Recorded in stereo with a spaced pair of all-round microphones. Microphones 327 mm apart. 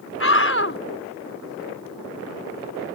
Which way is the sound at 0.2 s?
40° left (ahead or behind).